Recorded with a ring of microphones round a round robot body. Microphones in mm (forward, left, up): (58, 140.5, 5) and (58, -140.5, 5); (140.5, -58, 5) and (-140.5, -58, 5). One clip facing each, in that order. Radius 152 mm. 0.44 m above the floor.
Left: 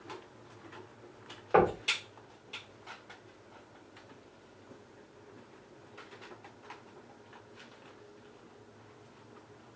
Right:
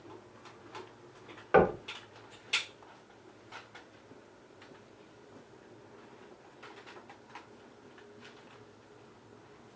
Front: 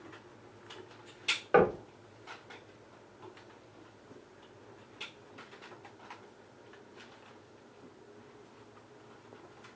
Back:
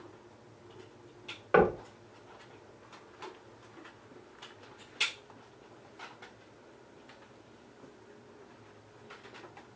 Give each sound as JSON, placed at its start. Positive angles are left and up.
{"t": 1.5, "sound": "knocking", "azimuth_deg": -105, "distance_m": 0.6}